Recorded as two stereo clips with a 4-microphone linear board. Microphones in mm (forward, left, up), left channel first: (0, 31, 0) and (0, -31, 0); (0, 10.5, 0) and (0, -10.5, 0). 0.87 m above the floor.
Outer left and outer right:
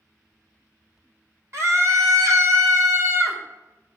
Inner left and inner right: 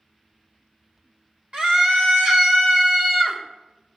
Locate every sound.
1.5 s a scream: 55° right (ahead or behind), 1.5 m